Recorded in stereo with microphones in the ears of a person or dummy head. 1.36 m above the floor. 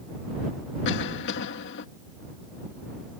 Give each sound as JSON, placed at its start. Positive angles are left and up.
{"t": 0.8, "sound": "a cough", "side_deg": 60}